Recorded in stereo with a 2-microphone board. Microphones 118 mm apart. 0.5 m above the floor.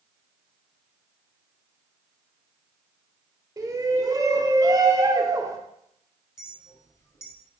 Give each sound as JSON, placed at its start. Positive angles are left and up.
{"t": 3.6, "sound": "a shout", "side_deg": -30, "distance_m": 1.8}
{"t": 6.4, "sound": "a clink", "side_deg": 25, "distance_m": 1.8}